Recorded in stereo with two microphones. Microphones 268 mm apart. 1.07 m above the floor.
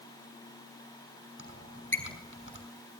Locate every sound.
1.4 s a squeak: 50° left (ahead or behind), 5.5 m